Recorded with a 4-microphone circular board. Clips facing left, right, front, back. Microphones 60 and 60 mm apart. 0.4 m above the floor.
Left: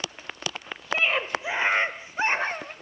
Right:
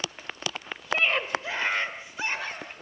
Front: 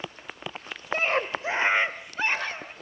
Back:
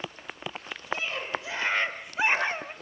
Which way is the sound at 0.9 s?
Straight ahead.